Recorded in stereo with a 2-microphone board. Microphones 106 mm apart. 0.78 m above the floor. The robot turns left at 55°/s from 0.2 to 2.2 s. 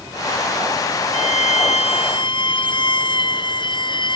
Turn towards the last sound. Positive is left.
turn(degrees=45)